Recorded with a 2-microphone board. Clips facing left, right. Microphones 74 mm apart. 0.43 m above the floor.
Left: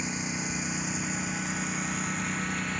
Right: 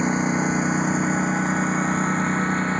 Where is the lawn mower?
50° right (ahead or behind); by 2.8 s 40° right (ahead or behind).